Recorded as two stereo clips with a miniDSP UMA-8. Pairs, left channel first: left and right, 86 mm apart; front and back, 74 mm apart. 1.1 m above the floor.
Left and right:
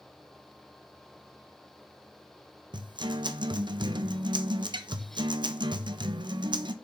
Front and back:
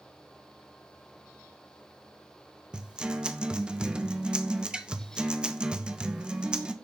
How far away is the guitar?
About 0.8 m.